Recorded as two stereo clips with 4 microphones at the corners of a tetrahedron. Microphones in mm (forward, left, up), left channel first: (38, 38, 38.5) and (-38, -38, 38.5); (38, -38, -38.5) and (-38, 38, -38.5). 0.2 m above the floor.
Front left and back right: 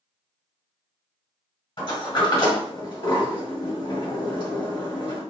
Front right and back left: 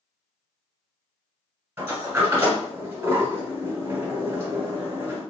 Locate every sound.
1.8 s a sliding door: 70° left, 1.9 m